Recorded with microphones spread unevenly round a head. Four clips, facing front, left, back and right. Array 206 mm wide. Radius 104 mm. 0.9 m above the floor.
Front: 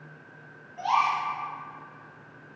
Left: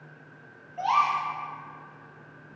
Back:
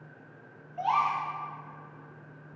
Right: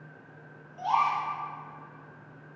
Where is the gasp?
90° left, 5.5 m.